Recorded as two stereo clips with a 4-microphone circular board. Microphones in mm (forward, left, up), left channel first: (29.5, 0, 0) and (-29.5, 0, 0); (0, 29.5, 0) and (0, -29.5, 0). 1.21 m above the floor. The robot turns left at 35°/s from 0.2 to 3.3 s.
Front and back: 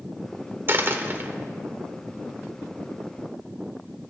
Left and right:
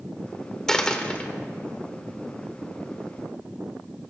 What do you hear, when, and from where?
0.7 s a dropped coin: 170° left, 1.0 m; by 1.3 s 145° left, 1.0 m